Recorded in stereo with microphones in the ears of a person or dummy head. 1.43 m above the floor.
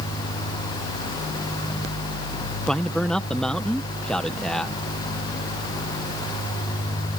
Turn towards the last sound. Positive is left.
turn(degrees=5)  # may be behind; listen again after turning